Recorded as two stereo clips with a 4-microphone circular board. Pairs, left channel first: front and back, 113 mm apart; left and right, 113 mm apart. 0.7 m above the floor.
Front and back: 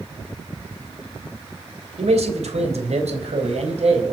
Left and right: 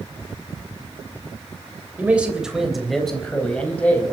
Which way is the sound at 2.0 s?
165° right.